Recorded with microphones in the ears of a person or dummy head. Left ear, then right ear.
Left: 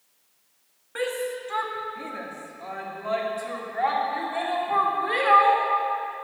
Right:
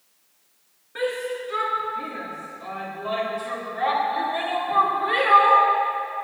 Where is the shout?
50° left (ahead or behind), 2.5 m; by 5.6 s 25° left (ahead or behind), 4 m.